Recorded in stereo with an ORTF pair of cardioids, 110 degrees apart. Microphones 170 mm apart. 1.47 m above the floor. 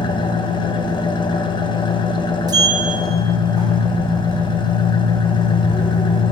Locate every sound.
0.0 s an engine running: 30° left, 1.2 m
2.5 s a sliding door: 25° right, 1.7 m